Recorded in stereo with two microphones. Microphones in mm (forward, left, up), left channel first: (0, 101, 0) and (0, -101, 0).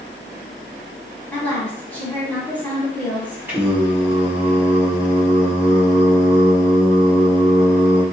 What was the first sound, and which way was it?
A woman speaking, 10° left (ahead or behind).